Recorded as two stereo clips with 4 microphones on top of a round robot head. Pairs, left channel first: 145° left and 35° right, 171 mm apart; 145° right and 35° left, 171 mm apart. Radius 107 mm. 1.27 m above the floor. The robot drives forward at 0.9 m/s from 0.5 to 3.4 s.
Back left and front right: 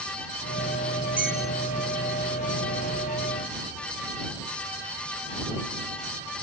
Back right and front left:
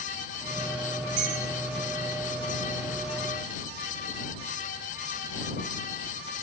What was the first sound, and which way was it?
A bell, 45° left.